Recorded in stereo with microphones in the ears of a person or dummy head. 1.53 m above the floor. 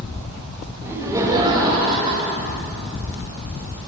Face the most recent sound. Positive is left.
turn(degrees=-35)  # may be behind; listen again after turning